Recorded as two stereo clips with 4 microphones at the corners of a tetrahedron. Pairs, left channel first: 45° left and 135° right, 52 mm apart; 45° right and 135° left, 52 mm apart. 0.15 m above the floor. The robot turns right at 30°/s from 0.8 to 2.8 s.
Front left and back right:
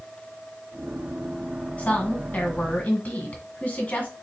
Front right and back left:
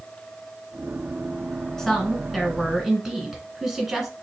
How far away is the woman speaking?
About 1.4 m.